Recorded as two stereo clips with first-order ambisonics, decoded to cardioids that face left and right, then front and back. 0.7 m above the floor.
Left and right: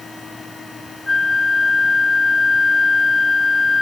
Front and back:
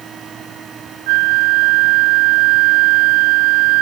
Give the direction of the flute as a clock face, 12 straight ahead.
6 o'clock.